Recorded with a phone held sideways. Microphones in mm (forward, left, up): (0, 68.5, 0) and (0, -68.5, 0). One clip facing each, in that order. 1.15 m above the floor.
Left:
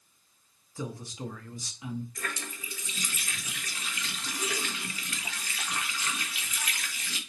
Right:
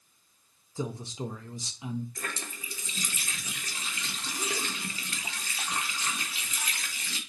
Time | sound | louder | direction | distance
0.8 | a man speaking | right 3 dB | 25° right (ahead or behind) | 0.6 m
2.1 | a running tap | left 1 dB | 30° right (ahead or behind) | 0.9 m